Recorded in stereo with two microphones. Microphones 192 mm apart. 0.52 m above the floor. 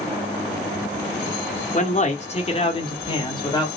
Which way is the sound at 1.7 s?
40° left (ahead or behind).